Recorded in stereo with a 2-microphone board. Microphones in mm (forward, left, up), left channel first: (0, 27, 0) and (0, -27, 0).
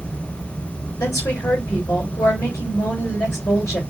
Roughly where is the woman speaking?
Left.